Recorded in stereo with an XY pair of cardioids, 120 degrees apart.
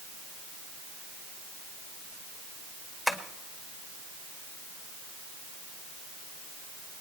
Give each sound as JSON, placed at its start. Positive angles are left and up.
{"t": 3.1, "sound": "tapping", "azimuth_deg": 15, "distance_m": 1.9}